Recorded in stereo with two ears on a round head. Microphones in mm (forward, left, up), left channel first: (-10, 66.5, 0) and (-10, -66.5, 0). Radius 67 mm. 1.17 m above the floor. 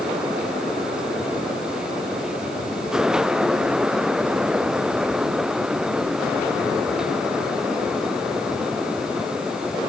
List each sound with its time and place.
Only background noise.